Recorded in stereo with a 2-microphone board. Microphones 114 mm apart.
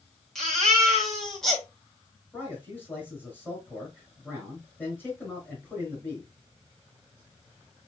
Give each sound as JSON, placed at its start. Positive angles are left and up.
{"t": 0.3, "sound": "a baby crying", "side_deg": 5, "distance_m": 2.0}
{"t": 2.3, "sound": "a man speaking", "side_deg": 15, "distance_m": 4.0}